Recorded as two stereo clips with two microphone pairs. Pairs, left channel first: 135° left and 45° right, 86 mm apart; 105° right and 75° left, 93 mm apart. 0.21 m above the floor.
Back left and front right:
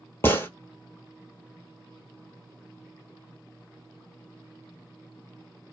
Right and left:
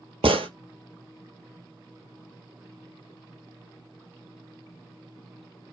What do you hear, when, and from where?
0.2 s a gunshot: 70° left, 0.8 m